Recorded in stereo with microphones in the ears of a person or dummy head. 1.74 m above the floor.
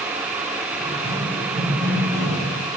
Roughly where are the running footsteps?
Right.